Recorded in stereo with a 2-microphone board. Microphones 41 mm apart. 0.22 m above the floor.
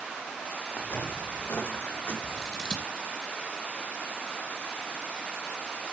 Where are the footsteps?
65° left (ahead or behind), 2.5 m; by 2.1 s 55° left (ahead or behind), 3.5 m.